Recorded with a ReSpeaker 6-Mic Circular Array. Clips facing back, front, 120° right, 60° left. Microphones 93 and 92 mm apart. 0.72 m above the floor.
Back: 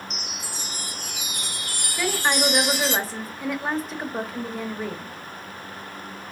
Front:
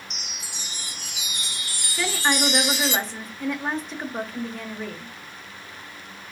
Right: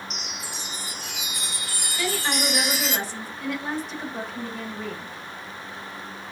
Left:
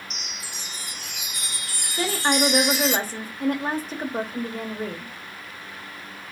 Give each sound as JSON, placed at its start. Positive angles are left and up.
{"t": 0.1, "sound": "a chime", "azimuth_deg": 150, "distance_m": 0.6}
{"t": 2.0, "sound": "a woman speaking", "azimuth_deg": 95, "distance_m": 0.8}